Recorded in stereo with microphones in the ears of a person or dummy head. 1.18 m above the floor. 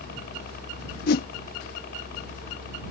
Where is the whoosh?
55° left (ahead or behind).